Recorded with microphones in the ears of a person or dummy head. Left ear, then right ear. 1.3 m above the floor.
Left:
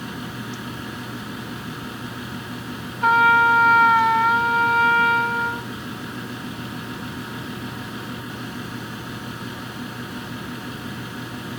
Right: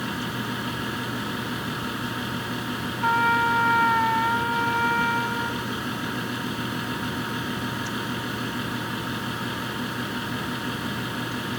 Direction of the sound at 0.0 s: 15° right (ahead or behind).